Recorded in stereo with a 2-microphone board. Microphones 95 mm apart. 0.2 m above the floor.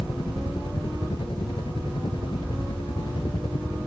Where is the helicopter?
60° left (ahead or behind).